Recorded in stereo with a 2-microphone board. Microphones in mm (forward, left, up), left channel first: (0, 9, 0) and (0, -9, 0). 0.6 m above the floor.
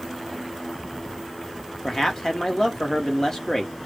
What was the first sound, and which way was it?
A man speaking, 35° left (ahead or behind).